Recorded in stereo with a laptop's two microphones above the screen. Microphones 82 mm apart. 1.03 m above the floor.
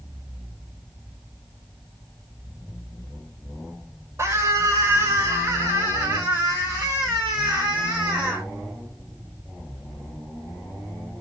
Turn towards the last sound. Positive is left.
turn(degrees=-25)  # may be behind; listen again after turning